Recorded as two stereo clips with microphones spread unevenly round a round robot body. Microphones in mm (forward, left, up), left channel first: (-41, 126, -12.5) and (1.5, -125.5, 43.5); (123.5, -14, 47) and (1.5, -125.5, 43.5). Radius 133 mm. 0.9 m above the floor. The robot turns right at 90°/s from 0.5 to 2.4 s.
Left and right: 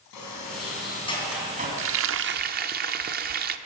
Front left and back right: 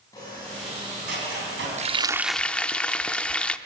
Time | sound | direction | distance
0.1 | a sliding door | 120° left | 5 m
1.8 | frying | 95° right | 0.7 m